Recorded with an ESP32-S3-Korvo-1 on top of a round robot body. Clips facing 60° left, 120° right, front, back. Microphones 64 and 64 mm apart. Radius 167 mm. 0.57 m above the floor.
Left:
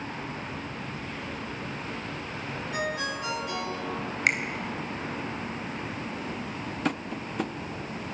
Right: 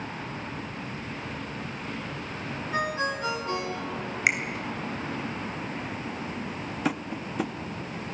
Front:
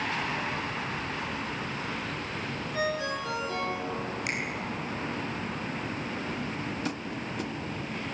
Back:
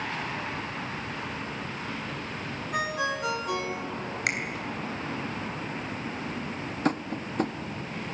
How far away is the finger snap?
About 3 m.